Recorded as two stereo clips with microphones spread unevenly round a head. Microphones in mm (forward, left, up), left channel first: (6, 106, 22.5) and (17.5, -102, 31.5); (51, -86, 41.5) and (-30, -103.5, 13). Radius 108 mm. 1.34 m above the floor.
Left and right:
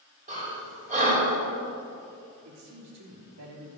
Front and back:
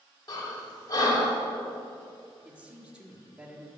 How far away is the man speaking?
About 3 m.